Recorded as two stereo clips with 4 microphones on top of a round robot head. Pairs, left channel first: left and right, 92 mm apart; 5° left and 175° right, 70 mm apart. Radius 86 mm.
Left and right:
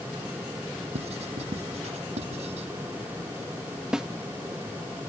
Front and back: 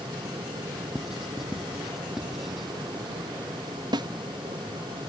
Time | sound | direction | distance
0.9 | writing | 90° right | ?
3.9 | a snare drum | 175° right | ?